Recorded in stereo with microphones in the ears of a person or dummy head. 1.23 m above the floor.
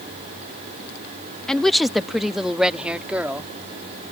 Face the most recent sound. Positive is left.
turn(degrees=-5)  # may be behind; listen again after turning